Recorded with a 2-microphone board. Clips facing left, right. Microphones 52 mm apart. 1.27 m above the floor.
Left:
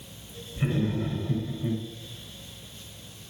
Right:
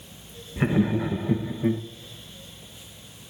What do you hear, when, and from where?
0.6 s laughter: 80° right, 0.7 m